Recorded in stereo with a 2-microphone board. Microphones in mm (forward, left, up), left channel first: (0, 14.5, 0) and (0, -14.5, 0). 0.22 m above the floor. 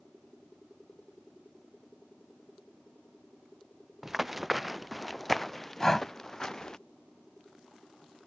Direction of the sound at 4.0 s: 10° right (ahead or behind).